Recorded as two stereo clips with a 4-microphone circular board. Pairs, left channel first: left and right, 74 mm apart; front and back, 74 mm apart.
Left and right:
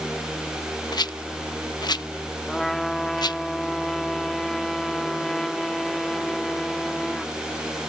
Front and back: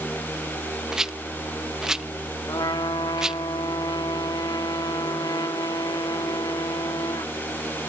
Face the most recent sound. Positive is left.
turn(degrees=5)